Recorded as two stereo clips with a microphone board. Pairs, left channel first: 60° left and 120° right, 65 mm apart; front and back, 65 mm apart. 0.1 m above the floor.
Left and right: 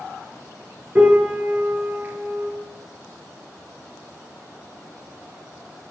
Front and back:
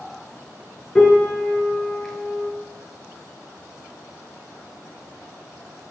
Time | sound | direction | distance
0.9 | a piano | 80° right | 0.6 m